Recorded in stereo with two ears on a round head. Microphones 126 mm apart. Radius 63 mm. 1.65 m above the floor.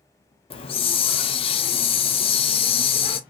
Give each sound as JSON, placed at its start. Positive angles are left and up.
{"t": 0.5, "sound": "a hiss", "side_deg": 40, "distance_m": 0.5}